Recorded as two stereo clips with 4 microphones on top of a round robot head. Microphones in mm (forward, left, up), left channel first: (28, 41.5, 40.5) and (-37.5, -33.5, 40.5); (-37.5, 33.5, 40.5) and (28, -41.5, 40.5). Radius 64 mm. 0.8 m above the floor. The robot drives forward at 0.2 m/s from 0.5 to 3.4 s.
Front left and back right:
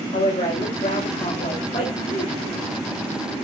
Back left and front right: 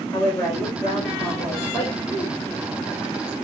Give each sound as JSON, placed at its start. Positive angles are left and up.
{"t": 0.1, "sound": "a woman speaking", "azimuth_deg": 65, "distance_m": 4.0}